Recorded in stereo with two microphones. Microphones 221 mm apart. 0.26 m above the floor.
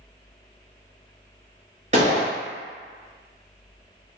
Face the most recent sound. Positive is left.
turn(degrees=-30)  # may be behind; listen again after turning